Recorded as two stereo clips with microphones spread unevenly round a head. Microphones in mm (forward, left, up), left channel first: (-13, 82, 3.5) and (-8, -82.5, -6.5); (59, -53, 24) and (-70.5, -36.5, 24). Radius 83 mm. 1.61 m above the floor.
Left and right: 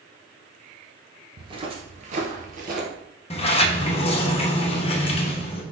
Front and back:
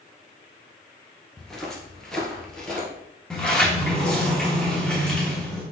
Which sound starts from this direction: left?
A sliding door, at 3.3 s.